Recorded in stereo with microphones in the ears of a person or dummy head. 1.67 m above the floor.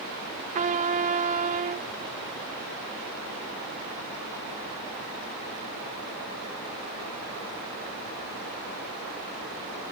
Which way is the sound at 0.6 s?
40° right (ahead or behind).